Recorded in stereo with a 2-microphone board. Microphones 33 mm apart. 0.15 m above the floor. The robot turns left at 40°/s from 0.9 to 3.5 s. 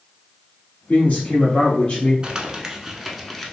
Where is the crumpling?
25° right (ahead or behind), 0.6 m; by 3.5 s 10° left (ahead or behind), 0.6 m.